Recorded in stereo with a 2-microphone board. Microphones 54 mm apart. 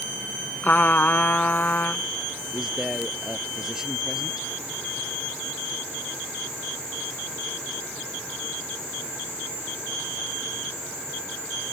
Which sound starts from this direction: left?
A trumpet, at 0.6 s.